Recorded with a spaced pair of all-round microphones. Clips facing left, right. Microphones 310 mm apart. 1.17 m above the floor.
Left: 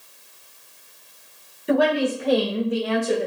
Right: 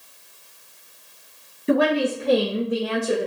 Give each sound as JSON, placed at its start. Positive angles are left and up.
{"t": 1.7, "sound": "a woman speaking", "side_deg": -30, "distance_m": 1.1}